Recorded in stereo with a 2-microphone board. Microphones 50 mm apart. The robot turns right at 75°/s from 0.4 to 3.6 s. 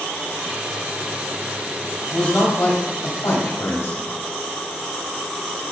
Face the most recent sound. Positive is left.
turn(degrees=115)